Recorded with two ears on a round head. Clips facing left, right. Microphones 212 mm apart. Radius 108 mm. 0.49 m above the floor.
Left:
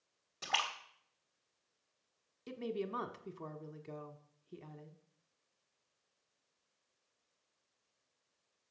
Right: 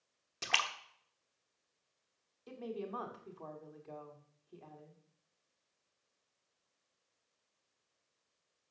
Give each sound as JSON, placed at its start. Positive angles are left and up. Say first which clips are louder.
{"t": 0.4, "sound": "a splash", "louder": "left 1 dB", "side_deg": -35, "distance_m": 1.2}
{"t": 2.5, "sound": "a woman speaking", "louder": "left 3 dB", "side_deg": 35, "distance_m": 1.0}